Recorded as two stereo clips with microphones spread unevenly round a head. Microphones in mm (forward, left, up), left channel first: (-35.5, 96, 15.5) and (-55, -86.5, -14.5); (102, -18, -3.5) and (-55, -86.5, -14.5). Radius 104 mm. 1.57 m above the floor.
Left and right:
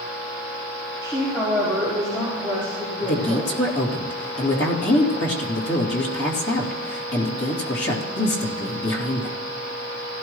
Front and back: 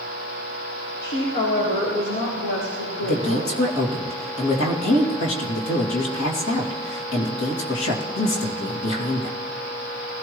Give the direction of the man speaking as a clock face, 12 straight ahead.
11 o'clock.